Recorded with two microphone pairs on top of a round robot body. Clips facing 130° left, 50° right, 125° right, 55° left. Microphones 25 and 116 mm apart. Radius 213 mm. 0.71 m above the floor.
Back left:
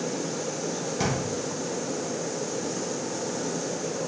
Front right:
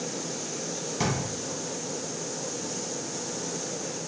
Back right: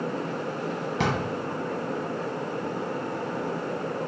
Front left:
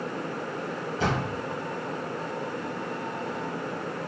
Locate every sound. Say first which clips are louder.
1.0 s a drawer: even, even; 135° right, 0.8 m